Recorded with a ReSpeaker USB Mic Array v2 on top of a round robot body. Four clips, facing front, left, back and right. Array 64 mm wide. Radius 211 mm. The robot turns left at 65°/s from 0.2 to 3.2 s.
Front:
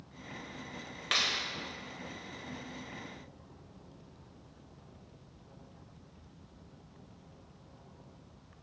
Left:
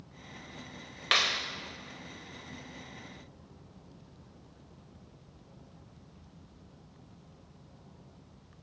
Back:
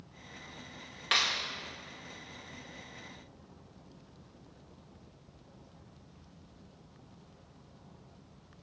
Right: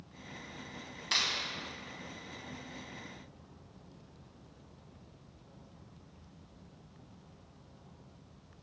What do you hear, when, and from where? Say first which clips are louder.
1.1 s a clap: left 6 dB, back 2 dB; 90° left, 2 m; by 1.4 s 70° left, 2 m